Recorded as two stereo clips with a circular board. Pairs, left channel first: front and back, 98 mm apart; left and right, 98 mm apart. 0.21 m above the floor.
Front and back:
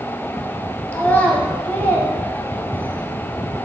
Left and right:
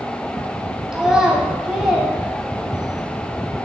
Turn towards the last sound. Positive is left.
turn(degrees=-25)